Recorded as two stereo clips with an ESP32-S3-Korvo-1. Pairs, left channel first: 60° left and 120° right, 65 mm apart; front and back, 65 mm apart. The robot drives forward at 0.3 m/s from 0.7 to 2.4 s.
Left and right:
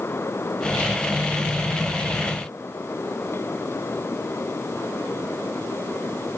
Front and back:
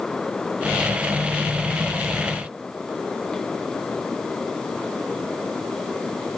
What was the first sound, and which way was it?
Only background noise.